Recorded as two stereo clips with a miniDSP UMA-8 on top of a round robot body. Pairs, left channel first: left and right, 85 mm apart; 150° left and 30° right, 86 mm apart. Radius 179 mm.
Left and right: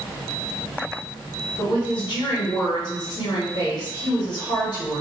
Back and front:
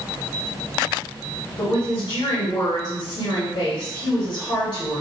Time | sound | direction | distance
1.6 | a woman speaking | 120° left | 1.4 m